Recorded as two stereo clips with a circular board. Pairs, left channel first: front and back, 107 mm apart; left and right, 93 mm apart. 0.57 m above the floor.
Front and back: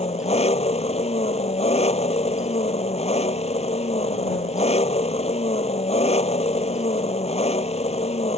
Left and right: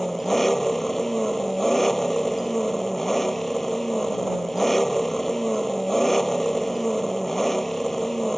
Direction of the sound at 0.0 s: Straight ahead.